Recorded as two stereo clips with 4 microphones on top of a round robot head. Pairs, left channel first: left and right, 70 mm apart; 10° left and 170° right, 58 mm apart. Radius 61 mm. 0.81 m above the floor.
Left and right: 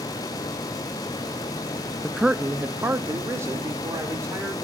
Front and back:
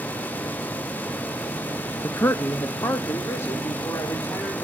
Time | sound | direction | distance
2.0 | a man speaking | 10° left | 0.6 m